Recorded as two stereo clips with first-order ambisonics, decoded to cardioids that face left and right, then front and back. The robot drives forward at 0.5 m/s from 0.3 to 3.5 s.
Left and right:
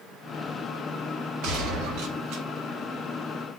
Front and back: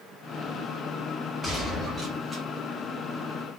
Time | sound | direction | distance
1.4 | a gunshot | 80° right | 1.4 m